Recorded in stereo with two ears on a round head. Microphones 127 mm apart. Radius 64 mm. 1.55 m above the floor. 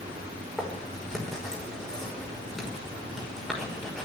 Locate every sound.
0.6 s writing: 5° left (ahead or behind), 5.5 m